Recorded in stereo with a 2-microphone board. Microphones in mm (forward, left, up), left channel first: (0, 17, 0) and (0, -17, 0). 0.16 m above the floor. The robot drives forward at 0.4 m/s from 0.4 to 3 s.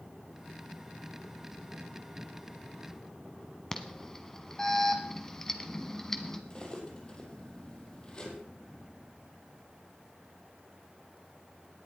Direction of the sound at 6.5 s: 30° left (ahead or behind).